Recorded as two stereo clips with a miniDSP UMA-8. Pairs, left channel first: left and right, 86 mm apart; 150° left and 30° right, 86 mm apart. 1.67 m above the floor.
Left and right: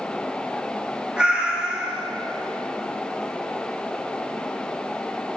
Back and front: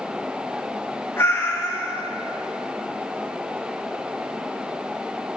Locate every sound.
1.2 s a cat meowing: 160° right, 2 m